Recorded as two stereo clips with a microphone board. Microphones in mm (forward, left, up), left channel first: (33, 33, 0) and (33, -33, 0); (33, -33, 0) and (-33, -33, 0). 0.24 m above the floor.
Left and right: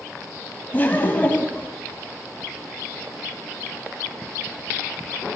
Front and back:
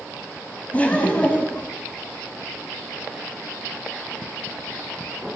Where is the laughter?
50° left, 1.3 m.